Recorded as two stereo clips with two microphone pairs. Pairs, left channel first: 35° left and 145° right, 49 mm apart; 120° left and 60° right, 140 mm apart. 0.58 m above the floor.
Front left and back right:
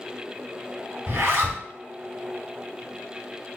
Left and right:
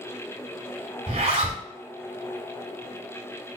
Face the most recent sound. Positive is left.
turn(degrees=-100)